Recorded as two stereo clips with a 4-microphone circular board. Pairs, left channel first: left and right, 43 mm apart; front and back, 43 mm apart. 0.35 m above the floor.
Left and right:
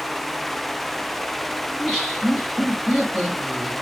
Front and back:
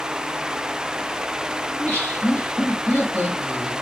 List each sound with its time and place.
1.7 s laughter: 5° left, 2.5 m